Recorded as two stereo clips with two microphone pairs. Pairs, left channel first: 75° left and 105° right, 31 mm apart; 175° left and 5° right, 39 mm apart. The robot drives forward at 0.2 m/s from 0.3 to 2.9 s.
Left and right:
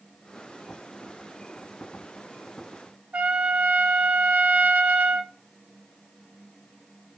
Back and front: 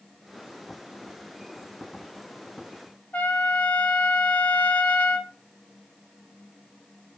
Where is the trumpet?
130° right, 0.6 m.